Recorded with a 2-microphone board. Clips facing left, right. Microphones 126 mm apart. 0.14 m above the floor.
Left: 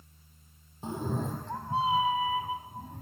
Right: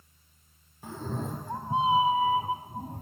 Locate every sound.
0.8 s a cat meowing: 25° left (ahead or behind), 1.0 m; by 3.0 s 40° right (ahead or behind), 2.5 m